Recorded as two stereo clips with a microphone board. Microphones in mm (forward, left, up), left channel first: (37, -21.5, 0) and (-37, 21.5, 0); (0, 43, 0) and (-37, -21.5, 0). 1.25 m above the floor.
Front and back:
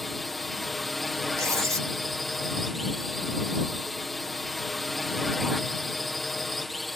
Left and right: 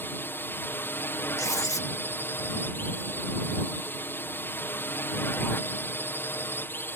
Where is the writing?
100° left.